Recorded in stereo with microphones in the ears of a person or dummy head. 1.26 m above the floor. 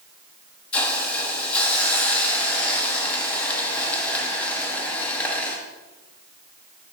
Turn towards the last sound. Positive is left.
turn(degrees=10)  # may be behind; listen again after turning